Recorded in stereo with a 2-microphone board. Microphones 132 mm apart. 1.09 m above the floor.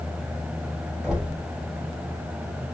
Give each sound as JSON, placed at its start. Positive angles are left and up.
{"t": 1.0, "sound": "knocking", "side_deg": -5, "distance_m": 3.5}